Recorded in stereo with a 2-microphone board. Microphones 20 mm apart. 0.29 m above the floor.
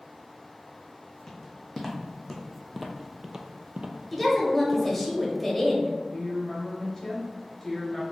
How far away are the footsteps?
About 1.2 m.